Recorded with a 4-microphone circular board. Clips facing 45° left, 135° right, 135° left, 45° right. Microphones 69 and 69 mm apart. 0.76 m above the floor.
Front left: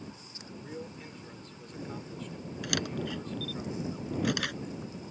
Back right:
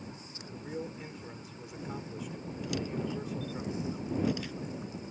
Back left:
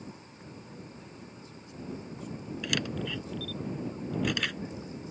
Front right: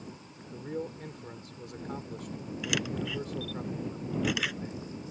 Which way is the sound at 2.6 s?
40° left.